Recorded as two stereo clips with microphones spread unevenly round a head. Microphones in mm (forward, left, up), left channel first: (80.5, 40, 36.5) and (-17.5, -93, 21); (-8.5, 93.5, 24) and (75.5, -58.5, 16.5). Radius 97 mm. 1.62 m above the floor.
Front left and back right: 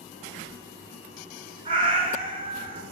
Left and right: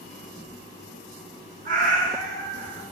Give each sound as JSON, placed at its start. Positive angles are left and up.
{"t": 1.6, "sound": "a cat meowing", "azimuth_deg": -85, "distance_m": 1.4}